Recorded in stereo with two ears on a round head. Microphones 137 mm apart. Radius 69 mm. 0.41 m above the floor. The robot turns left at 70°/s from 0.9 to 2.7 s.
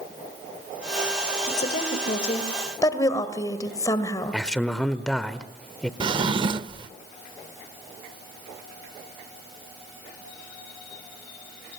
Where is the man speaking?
5° left (ahead or behind), 1.0 m.